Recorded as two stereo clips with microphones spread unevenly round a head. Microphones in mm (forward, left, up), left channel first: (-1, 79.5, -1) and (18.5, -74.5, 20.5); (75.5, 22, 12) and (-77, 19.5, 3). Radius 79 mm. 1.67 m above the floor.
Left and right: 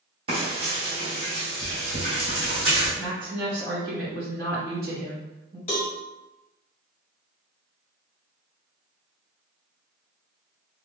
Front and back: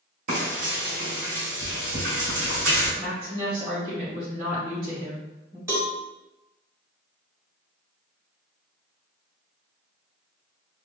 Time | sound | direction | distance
0.3 | frying | 135° right | 1.9 m
3.0 | a woman speaking | 115° right | 1.7 m
5.7 | a cowbell | 120° left | 1.7 m